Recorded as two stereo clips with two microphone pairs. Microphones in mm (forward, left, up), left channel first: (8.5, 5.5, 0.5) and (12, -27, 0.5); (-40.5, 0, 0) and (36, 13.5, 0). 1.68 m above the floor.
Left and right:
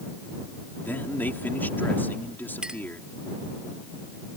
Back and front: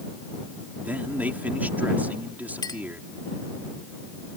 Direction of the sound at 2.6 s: 150° right.